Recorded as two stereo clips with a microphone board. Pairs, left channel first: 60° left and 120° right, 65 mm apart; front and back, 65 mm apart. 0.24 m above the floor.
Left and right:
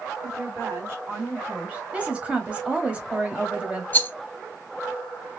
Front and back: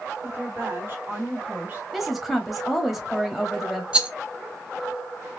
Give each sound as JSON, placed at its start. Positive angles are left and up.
{"t": 0.2, "sound": "a woman speaking", "azimuth_deg": -135, "distance_m": 2.5}
{"t": 1.9, "sound": "a woman speaking", "azimuth_deg": -95, "distance_m": 1.0}
{"t": 3.9, "sound": "a rattle", "azimuth_deg": 115, "distance_m": 0.5}